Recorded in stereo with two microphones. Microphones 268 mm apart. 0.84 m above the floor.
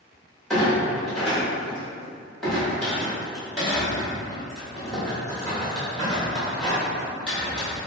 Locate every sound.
0.5 s a clunk: centre (ahead or behind), 1.2 m